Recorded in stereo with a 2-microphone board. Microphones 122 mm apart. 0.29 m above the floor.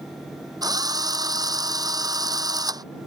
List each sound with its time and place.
0.6 s a drill: 35° right (ahead or behind)